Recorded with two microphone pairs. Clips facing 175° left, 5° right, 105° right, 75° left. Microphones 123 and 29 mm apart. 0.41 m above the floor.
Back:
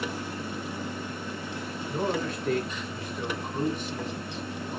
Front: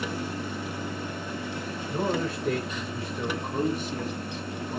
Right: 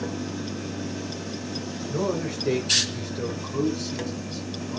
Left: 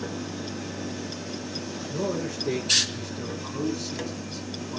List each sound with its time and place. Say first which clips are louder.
1.9 s a man speaking: front 1 dB, right 2 dB; 90° right, 1.6 m; by 4.8 s 20° right, 1.6 m